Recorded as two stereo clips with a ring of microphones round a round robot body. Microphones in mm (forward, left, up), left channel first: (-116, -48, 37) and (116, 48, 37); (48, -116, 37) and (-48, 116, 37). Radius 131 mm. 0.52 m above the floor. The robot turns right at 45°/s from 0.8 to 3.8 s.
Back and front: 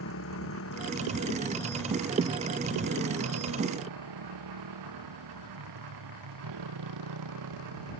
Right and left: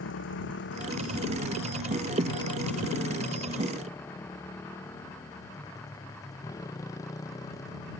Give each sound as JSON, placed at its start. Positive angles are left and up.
{"t": 0.0, "sound": "a motorcycle", "azimuth_deg": -115}